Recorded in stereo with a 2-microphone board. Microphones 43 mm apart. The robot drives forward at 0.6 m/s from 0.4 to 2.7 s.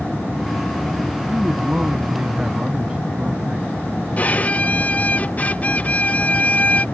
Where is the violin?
35° left (ahead or behind).